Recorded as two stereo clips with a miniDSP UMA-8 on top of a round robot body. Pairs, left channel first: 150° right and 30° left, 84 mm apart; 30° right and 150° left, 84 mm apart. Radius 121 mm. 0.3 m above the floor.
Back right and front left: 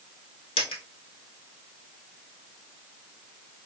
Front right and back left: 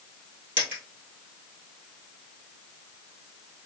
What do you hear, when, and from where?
0.6 s a dropped coin: 140° right, 1.6 m